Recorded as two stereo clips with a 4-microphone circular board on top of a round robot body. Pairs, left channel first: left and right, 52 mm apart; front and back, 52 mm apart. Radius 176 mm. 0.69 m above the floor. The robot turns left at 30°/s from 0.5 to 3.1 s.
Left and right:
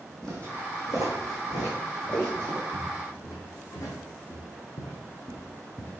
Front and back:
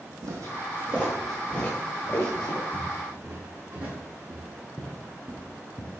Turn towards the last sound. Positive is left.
turn(degrees=25)